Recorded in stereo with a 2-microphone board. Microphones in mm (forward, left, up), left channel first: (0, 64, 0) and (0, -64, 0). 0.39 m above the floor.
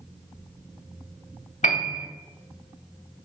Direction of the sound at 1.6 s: 80° left.